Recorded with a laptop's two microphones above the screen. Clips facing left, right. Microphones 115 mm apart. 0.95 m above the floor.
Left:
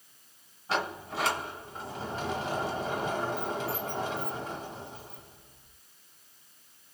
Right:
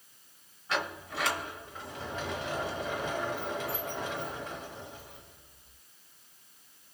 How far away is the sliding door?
About 1.2 m.